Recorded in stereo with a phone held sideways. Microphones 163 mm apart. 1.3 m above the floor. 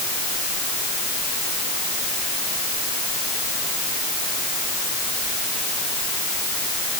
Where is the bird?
I don't hear a bird.